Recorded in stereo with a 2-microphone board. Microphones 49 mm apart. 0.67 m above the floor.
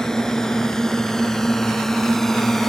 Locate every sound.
0.0 s a drone: 10° left (ahead or behind); by 2.7 s 5° left (ahead or behind)